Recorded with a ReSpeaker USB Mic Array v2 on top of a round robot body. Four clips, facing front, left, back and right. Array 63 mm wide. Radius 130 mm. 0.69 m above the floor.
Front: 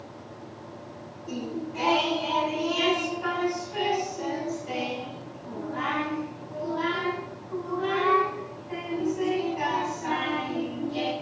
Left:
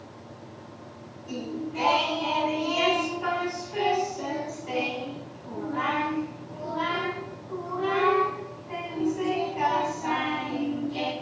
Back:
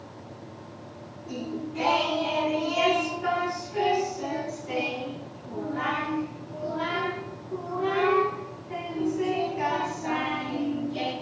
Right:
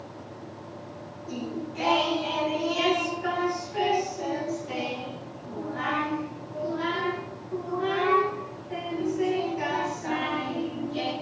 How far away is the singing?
About 3.5 m.